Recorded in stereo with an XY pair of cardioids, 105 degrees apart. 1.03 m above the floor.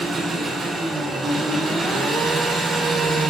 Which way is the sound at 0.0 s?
25° right.